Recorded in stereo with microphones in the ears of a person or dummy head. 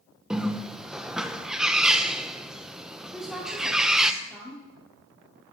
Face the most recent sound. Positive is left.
turn(degrees=-5)  # may be behind; listen again after turning